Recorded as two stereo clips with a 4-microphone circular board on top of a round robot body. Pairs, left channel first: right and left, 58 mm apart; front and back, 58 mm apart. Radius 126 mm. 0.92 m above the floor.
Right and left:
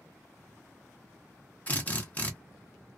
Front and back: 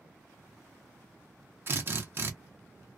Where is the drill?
145° right, 1.1 m.